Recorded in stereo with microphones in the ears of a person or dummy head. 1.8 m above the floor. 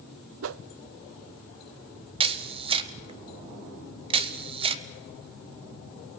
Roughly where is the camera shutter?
Right.